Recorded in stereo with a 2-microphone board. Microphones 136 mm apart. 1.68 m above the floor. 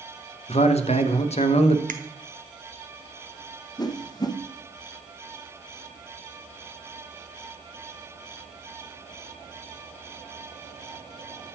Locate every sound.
0.5 s a man speaking: 50° left (ahead or behind), 0.6 m
1.9 s a finger snap: 80° right, 0.6 m
3.8 s a whoosh: 30° left (ahead or behind), 0.6 m